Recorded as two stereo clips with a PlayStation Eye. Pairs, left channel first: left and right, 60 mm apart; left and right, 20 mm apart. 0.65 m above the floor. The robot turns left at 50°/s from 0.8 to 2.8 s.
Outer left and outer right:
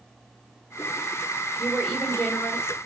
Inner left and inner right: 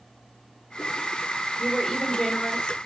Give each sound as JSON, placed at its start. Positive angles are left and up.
{"t": 1.6, "sound": "a woman speaking", "azimuth_deg": -170, "distance_m": 2.5}